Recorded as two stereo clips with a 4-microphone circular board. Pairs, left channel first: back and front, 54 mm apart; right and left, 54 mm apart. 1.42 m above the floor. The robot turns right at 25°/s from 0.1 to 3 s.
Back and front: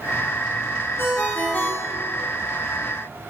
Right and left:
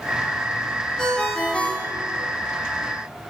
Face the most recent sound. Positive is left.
turn(degrees=-110)